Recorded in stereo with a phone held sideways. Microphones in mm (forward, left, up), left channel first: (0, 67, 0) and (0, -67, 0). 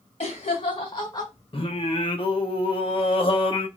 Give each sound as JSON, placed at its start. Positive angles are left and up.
{"t": 0.2, "sound": "laughter", "side_deg": 50, "distance_m": 1.4}
{"t": 1.5, "sound": "singing", "side_deg": 45, "distance_m": 0.7}